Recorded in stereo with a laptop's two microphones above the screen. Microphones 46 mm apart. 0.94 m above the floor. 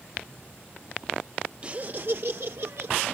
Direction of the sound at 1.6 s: 25° right (ahead or behind).